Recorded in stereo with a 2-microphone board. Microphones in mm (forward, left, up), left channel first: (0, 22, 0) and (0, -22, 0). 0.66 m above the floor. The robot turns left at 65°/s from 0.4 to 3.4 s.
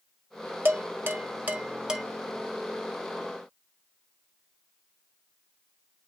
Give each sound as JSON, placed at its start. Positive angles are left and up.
{"t": 0.7, "sound": "dishes clattering", "side_deg": -50, "distance_m": 0.6}